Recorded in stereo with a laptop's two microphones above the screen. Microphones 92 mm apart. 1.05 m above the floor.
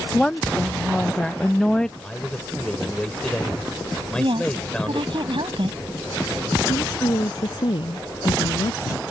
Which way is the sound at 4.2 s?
70° right (ahead or behind).